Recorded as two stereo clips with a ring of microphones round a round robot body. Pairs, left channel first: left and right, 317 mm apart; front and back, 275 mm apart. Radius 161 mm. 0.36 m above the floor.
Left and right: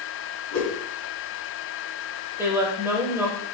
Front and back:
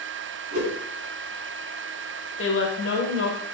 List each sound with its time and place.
0.5 s a whoosh: 115° left, 4 m
2.4 s a woman speaking: 10° right, 1.7 m